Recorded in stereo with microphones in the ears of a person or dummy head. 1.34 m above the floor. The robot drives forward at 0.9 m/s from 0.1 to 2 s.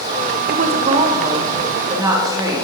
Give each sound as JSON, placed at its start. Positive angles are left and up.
{"t": 0.5, "sound": "a woman speaking", "side_deg": -55, "distance_m": 0.7}